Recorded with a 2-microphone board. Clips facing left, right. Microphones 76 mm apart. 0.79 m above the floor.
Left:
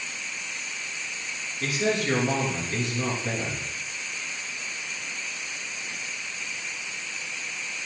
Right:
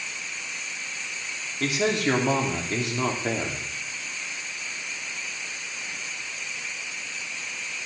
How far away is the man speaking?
About 2 m.